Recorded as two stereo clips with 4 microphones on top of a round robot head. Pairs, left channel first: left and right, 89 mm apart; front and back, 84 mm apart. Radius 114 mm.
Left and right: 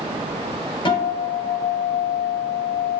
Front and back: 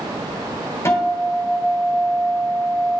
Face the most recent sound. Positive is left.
turn(degrees=60)